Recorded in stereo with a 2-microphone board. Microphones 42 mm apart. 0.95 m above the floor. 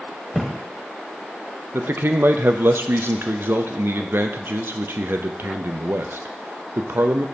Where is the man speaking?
60° right (ahead or behind), 0.6 m.